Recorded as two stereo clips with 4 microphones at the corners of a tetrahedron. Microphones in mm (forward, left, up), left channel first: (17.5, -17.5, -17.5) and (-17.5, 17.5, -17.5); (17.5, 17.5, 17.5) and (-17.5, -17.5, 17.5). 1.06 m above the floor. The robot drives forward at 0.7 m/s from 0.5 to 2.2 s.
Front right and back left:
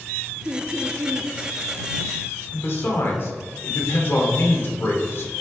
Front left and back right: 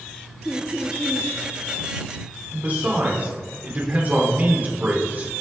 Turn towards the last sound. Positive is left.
turn(degrees=-85)